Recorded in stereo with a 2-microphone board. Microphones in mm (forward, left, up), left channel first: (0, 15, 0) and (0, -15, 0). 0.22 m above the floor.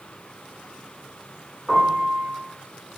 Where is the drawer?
No drawer in this recording.